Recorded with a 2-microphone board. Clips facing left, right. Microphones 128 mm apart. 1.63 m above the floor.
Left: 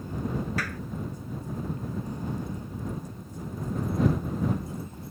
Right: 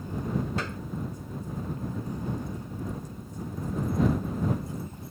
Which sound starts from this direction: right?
A clap, at 0.6 s.